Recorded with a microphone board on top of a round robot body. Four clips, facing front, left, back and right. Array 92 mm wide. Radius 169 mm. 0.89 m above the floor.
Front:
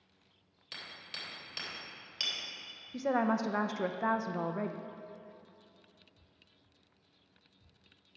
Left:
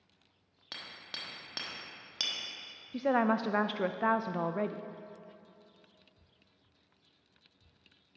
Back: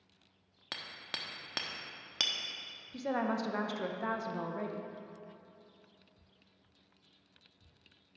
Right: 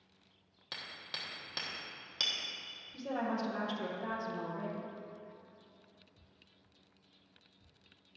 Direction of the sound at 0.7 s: 175° left.